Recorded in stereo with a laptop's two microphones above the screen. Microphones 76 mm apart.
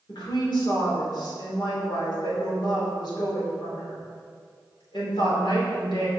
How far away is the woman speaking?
About 3 m.